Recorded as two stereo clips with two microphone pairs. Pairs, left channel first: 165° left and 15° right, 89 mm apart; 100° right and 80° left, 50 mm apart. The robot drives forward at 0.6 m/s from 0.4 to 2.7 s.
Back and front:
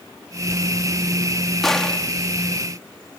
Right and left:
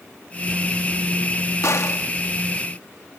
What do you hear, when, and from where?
1.6 s a gunshot: 110° right; by 2.1 s 115° right